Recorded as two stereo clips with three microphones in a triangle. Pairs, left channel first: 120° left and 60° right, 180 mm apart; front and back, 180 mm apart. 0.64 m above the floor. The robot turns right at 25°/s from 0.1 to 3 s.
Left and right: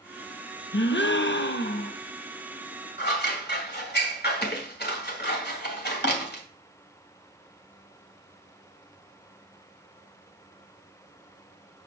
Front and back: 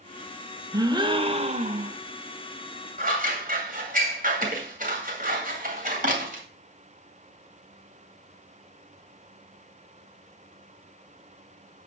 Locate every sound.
0.7 s a gasp: 110° left, 0.6 m; by 2.0 s 145° left, 0.6 m
3.0 s scissors: 140° left, 2 m